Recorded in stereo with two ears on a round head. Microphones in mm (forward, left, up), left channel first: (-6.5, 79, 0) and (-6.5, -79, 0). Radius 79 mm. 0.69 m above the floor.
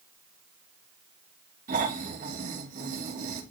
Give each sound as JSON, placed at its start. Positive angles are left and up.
{"t": 1.7, "sound": "snoring", "side_deg": -50, "distance_m": 5.0}